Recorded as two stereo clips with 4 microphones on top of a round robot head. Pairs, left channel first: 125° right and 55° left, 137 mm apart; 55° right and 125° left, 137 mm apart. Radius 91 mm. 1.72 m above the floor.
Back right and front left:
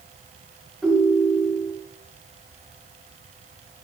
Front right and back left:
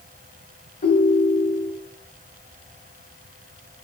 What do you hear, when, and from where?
0.8 s a ringtone: 40° right, 4 m